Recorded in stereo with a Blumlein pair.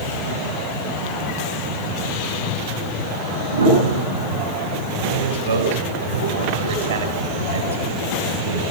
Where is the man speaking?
65° right, 5 m.